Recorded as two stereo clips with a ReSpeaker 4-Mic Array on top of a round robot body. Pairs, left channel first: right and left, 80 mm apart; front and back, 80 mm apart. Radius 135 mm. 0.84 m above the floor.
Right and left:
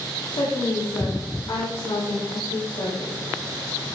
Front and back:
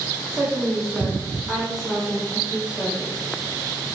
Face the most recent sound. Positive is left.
turn(degrees=-90)